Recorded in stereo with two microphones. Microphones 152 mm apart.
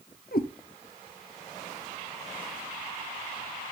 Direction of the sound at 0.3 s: 75° left (ahead or behind).